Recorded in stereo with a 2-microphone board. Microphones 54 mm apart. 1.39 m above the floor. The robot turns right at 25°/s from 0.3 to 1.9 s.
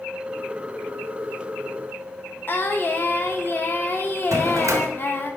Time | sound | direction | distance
2.5 | singing | 40° left (ahead or behind) | 0.8 m
4.3 | a drawer | 65° right (ahead or behind) | 1.0 m